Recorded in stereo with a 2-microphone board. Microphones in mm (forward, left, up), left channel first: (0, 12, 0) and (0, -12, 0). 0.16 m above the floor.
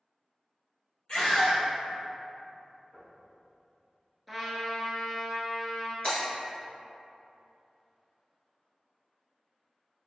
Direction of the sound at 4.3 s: Centre (ahead or behind).